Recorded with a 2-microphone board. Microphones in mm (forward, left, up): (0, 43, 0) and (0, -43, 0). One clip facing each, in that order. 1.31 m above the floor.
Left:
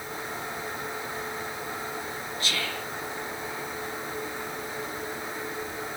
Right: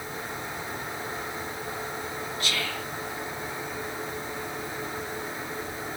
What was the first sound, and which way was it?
Whispering, 30° left (ahead or behind).